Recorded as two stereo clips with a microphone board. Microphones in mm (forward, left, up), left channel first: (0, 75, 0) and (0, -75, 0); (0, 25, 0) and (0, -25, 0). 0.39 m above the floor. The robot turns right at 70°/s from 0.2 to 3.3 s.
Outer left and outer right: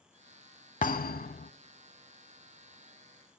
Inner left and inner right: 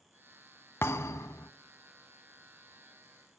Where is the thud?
60° left, 0.6 m; by 1.5 s 110° left, 0.6 m.